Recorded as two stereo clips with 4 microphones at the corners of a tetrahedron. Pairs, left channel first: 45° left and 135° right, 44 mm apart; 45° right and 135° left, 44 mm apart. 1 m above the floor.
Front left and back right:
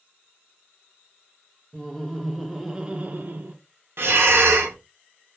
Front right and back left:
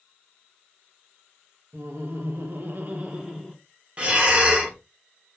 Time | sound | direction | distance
1.7 | laughter | 120° left | 0.9 m
4.0 | breathing | 160° right | 0.6 m